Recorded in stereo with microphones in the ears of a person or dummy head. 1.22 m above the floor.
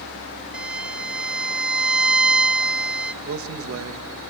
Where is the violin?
5° right (ahead or behind), 0.5 m.